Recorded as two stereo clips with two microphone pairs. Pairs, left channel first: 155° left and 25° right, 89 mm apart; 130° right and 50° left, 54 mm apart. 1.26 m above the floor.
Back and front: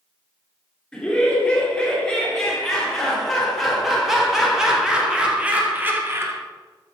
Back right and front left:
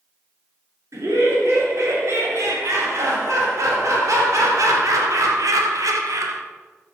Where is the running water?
I don't hear running water.